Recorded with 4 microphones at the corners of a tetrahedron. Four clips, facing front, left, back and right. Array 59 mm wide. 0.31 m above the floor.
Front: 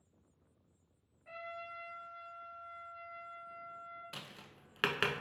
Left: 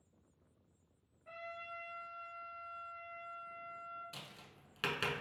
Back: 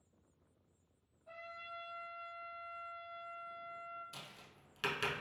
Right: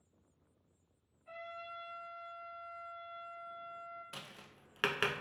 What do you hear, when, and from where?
1.2 s a trumpet: 15° left, 2.0 m
4.1 s tapping: 35° right, 0.5 m